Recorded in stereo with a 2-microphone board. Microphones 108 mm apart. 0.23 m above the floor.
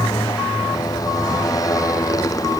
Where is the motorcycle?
35° left (ahead or behind); by 2.6 s 30° left (ahead or behind).